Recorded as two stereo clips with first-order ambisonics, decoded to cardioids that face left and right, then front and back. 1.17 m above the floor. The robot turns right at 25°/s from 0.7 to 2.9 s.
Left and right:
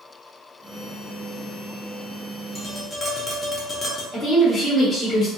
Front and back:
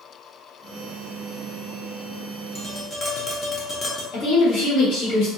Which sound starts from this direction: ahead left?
Tapping, at 2.5 s.